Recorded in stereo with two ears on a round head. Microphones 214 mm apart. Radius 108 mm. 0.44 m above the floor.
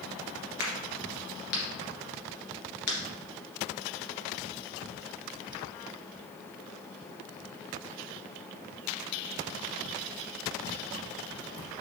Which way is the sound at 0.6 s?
80° left.